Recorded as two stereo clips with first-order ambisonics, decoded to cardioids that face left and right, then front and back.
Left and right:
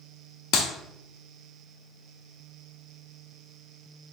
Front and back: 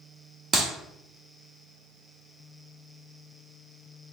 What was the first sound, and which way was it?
A clap, 110° left.